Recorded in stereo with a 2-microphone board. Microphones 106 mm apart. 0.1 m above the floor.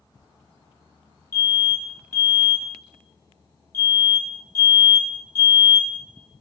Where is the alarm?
25° left (ahead or behind), 1.1 m.